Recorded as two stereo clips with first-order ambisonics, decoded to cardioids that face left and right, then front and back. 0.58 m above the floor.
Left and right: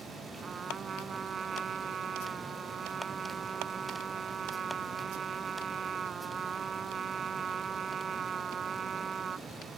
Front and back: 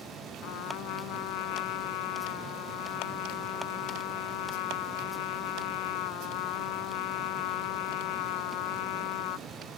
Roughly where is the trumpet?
Ahead.